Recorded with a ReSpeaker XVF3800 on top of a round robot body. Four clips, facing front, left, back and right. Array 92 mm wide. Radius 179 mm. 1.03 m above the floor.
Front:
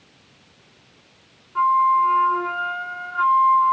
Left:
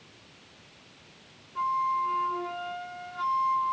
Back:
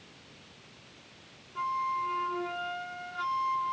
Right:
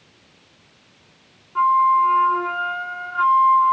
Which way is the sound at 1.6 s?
50° right.